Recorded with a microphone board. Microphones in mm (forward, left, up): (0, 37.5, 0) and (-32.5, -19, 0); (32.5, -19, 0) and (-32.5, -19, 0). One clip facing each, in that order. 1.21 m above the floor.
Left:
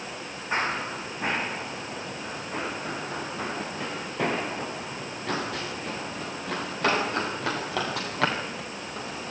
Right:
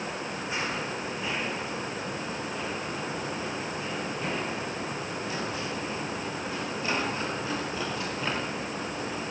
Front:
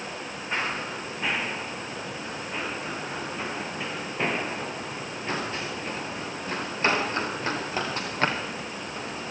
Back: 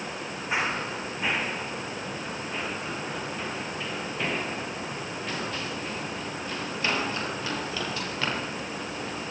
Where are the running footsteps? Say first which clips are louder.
Left 6 dB, back 1 dB; 105° left, 3 m; by 9.3 s 50° left, 7.5 m.